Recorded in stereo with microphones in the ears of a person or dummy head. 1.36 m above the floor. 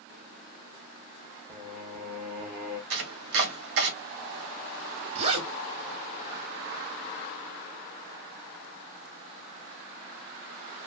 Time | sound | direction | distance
1.5 | singing | 5° right (ahead or behind) | 0.9 m
2.9 | chopping | 55° right (ahead or behind) | 1.4 m
5.2 | a zipper | 30° right (ahead or behind) | 1.3 m